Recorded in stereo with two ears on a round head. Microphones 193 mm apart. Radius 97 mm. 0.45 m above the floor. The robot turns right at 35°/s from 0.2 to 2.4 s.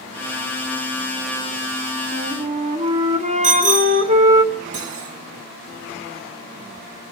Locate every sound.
2.1 s a flute: 35° right (ahead or behind), 1.7 m; by 4.4 s 30° right (ahead or behind), 1.7 m
3.4 s a bicycle bell: 35° right (ahead or behind), 5 m
4.7 s cutlery clinking: 80° right, 3.5 m